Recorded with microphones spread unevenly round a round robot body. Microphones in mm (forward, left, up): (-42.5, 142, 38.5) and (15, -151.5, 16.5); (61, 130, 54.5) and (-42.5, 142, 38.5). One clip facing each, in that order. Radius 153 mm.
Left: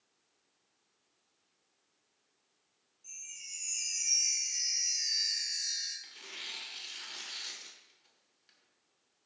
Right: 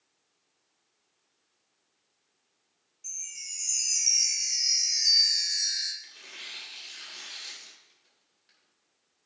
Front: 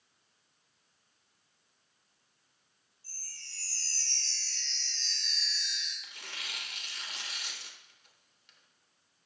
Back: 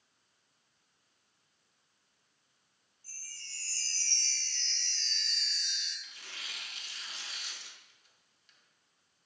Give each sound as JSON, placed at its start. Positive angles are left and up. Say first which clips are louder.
{"t": 3.0, "sound": "a chime", "louder": "right 4 dB, back 1 dB", "azimuth_deg": -90, "distance_m": 2.5}
{"t": 6.0, "sound": "tearing paper", "louder": "left 1 dB, front 3 dB", "azimuth_deg": 25, "distance_m": 1.2}